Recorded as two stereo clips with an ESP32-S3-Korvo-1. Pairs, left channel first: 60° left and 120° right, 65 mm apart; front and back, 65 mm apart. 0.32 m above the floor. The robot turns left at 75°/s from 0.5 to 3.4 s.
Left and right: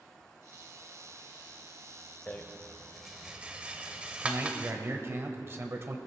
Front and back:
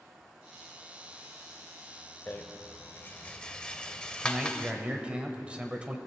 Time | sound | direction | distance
2.3 | a rattle | 20° left | 0.7 m
4.2 | a man speaking | 120° right | 1.1 m